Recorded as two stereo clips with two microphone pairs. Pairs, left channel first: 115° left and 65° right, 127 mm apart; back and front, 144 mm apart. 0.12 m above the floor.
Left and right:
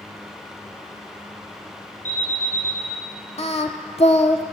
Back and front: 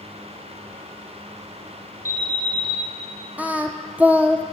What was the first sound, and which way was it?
An alarm, 115° left.